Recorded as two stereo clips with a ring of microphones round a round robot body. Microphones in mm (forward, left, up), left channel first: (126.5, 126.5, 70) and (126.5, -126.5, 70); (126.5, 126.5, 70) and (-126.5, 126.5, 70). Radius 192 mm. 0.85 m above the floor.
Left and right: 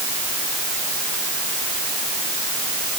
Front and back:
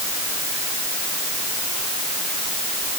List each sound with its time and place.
Only background noise.